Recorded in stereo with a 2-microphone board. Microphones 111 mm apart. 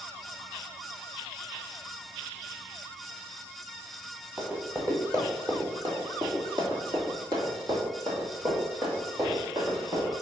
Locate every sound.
4.4 s running footsteps: 20° right (ahead or behind), 1.5 m; by 10.1 s 35° right (ahead or behind), 3 m